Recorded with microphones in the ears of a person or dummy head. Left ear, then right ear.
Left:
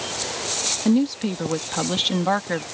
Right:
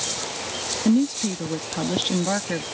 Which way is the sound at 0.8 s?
40° left (ahead or behind).